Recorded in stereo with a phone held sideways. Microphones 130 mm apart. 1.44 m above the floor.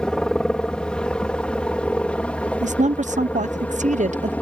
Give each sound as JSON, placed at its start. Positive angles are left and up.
{"t": 0.0, "sound": "a helicopter", "side_deg": 5}
{"t": 2.6, "sound": "a woman speaking", "side_deg": -70}